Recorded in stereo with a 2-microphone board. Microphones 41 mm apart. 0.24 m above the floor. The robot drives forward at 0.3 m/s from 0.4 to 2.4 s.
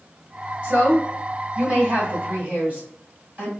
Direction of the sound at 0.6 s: 35° right (ahead or behind).